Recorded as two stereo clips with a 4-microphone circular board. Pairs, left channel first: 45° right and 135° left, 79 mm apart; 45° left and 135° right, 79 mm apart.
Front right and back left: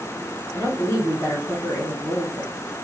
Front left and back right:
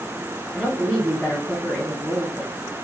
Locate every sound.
0.5 s a woman speaking: 55° right, 1.9 m